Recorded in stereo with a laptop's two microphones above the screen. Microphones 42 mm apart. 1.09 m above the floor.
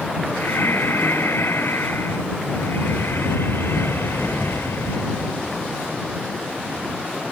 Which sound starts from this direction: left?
Breathing, at 0.3 s.